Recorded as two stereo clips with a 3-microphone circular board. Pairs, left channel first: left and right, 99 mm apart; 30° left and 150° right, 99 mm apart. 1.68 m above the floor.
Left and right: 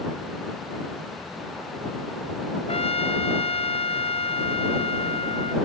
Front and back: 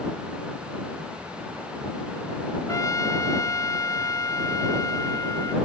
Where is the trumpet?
85° left.